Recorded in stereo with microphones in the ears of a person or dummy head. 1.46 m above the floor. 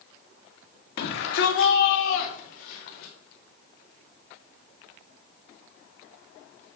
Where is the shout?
75° left (ahead or behind), 1.6 m.